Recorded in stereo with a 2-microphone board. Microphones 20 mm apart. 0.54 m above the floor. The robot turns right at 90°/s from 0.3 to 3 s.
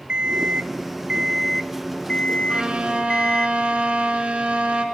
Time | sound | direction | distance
0.1 | an alarm clock | 115° right | 0.5 m
2.5 | a violin | 140° right | 3.5 m